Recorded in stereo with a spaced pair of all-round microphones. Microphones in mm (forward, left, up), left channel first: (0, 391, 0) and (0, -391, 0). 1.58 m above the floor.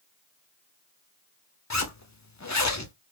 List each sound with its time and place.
1.7 s a zipper: 25° left (ahead or behind), 0.5 m